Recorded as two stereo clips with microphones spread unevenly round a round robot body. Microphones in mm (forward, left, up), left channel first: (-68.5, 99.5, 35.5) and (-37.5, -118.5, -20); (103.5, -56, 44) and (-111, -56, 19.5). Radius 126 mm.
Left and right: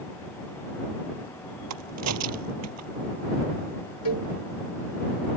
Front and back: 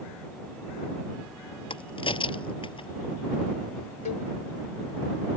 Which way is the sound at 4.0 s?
60° left.